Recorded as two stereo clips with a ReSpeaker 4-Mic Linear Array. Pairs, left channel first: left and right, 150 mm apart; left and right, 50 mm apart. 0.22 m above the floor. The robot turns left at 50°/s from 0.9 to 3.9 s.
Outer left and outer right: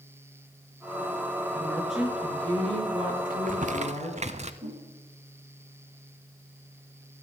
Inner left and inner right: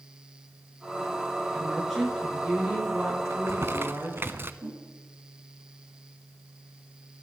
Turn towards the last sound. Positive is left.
turn(degrees=-55)  # may be behind; listen again after turning